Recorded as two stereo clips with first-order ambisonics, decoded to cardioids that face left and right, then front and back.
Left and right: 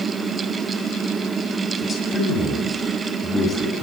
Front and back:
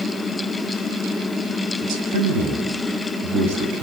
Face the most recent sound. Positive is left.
turn(degrees=155)